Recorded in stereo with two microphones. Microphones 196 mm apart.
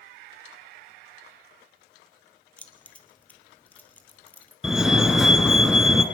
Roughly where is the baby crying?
I don't hear a baby crying.